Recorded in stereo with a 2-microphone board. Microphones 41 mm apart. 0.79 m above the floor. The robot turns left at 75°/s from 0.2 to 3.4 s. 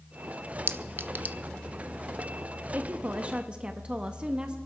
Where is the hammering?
No hammering in this recording.